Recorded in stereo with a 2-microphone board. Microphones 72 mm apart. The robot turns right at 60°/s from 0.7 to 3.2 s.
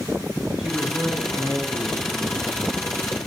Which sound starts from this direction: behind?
A man speaking, at 0.6 s.